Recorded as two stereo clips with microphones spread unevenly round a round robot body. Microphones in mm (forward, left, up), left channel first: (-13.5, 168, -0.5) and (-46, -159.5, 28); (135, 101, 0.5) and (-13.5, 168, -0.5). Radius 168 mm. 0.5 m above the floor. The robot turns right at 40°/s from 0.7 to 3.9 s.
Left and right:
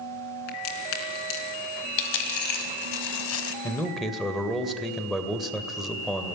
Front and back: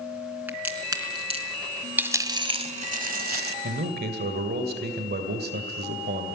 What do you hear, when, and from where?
0.5 s a crack: 75° left, 4 m; by 2.6 s 150° left, 4 m
2.0 s a dropped coin: 75° left, 1.3 m; by 3.5 s 140° left, 1.3 m
3.6 s a man speaking: 160° left, 2 m; by 6.3 s 170° left, 2 m